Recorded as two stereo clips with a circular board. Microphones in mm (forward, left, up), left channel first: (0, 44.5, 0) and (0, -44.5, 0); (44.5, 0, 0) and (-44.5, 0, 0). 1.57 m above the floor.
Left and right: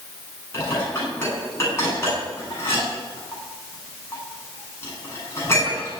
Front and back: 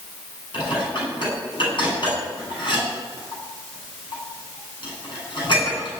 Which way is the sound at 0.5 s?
30° left.